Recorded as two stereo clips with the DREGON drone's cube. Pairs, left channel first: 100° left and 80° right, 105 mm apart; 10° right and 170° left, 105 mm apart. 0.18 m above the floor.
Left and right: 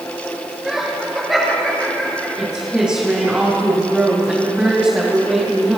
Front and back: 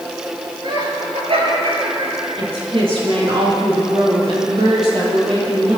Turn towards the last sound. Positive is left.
turn(degrees=-160)